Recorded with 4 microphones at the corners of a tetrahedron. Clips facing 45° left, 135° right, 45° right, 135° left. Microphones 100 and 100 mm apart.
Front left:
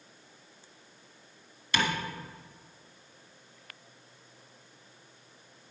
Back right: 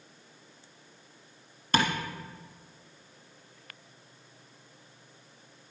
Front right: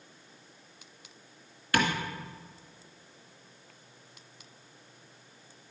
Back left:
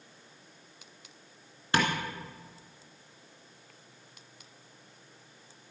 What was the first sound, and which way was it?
Tapping, 170° right.